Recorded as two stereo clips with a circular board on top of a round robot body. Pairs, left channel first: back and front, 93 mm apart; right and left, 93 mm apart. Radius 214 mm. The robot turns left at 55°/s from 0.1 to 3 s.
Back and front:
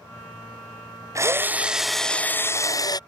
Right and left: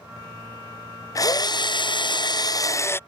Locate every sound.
1.1 s a drill: 50° right; by 3.0 s 150° right